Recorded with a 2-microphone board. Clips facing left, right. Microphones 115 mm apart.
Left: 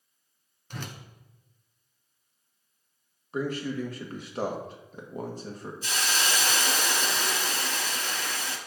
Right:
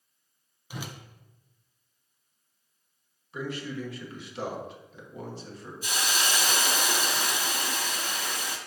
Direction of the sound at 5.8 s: 15° right (ahead or behind).